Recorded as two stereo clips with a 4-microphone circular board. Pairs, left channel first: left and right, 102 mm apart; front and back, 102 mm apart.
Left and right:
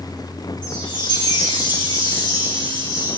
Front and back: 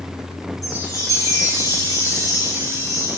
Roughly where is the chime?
Ahead left.